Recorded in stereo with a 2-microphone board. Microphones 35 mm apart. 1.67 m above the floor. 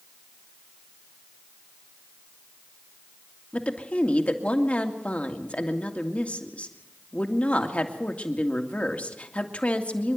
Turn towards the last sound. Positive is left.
turn(degrees=45)  # may be behind; listen again after turning